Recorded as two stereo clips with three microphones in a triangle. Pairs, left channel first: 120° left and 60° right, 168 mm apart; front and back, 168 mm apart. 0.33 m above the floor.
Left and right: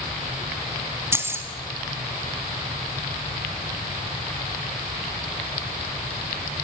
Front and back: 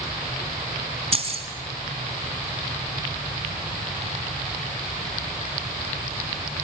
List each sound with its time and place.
1.1 s keys jangling: 135° right, 1.7 m